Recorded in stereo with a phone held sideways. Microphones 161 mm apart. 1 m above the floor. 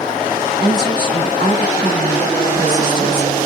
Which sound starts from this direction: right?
A woman speaking, at 0.6 s.